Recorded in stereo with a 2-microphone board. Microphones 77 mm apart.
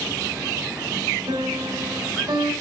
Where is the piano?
85° right, 3.5 m.